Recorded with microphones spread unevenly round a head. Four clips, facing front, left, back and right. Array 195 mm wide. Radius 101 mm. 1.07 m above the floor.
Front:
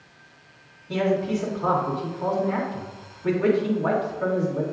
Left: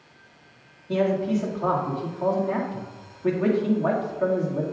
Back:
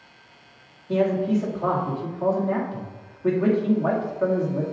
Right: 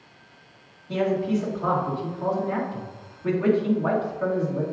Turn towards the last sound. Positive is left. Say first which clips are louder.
# left 1 dB, back 2 dB
turn(degrees=120)